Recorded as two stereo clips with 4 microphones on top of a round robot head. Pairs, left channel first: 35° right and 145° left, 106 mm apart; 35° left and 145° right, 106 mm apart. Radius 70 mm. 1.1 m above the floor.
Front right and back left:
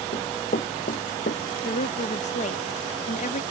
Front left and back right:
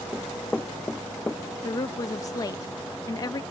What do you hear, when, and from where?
0.1 s running footsteps: 45° right
1.6 s a woman speaking: 20° right